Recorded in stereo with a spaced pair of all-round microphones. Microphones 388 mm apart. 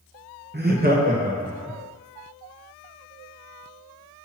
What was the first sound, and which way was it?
Laughter, 25° right (ahead or behind).